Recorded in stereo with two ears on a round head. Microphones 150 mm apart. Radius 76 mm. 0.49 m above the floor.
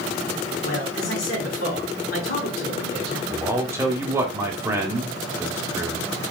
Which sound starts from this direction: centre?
A man speaking, at 3.3 s.